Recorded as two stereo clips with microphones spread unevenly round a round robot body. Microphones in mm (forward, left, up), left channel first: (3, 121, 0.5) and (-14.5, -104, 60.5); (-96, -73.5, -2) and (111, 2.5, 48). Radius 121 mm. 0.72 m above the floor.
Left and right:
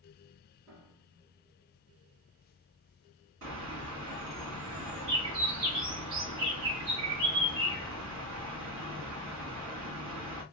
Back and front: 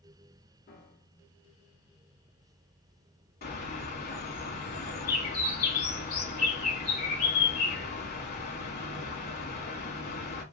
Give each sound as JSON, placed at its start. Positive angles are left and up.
{"t": 0.7, "sound": "a piano", "azimuth_deg": -130, "distance_m": 2.5}
{"t": 3.4, "sound": "a bird", "azimuth_deg": -130, "distance_m": 2.5}